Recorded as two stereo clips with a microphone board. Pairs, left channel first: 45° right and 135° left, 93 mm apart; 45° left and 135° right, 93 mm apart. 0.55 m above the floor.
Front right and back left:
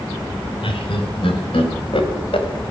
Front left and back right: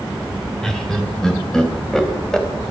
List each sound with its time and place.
0.6 s laughter: 40° right, 4 m